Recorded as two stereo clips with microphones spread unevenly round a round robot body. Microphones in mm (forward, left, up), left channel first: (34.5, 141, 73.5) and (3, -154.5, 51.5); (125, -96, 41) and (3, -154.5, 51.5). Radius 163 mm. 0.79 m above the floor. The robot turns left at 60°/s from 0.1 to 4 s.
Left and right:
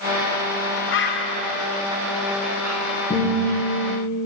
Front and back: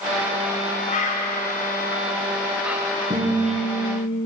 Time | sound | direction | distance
0.9 | a bird | 40° left | 0.9 m
3.1 | a guitar | 160° left | 3 m